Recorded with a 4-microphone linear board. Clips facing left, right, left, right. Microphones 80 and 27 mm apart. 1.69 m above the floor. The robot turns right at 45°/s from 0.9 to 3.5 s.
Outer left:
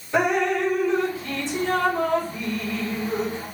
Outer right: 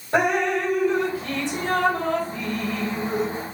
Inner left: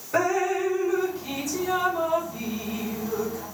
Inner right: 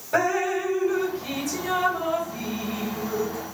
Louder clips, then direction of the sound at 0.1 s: Even, even; 120° right.